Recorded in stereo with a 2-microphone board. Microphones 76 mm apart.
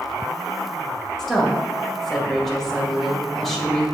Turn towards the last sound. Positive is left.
turn(degrees=5)  # may be behind; listen again after turning